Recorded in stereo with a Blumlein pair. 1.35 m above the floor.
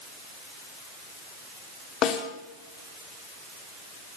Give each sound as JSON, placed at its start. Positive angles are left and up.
{"t": 2.0, "sound": "a snare drum", "azimuth_deg": 30, "distance_m": 2.0}